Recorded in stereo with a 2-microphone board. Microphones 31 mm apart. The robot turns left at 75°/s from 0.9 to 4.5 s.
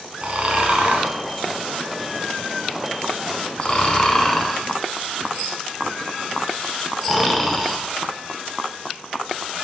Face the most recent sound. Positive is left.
turn(degrees=5)  # may be behind; listen again after turning